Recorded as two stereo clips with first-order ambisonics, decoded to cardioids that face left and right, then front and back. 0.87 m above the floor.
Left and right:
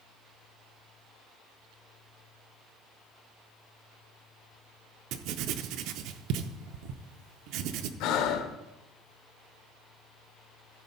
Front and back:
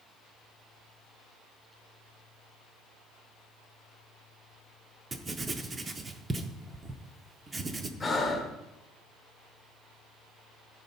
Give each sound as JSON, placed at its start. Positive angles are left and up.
{"t": 5.1, "sound": "writing", "azimuth_deg": -105, "distance_m": 0.6}
{"t": 8.0, "sound": "breathing", "azimuth_deg": 75, "distance_m": 0.9}